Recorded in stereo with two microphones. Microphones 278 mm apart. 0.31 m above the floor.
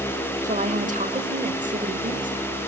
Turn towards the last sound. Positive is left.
turn(degrees=-25)  # may be behind; listen again after turning